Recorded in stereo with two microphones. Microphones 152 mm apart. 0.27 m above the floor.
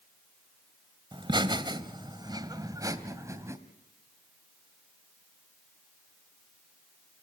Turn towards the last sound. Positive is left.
turn(degrees=-20)  # may be behind; listen again after turning